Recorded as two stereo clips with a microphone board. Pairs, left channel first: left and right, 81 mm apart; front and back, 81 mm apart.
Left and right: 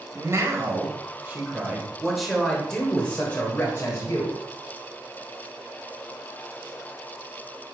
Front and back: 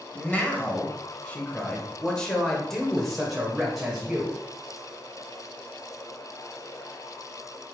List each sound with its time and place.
0.1 s a man speaking: 60° right, 1.8 m; by 4.4 s 100° left, 1.7 m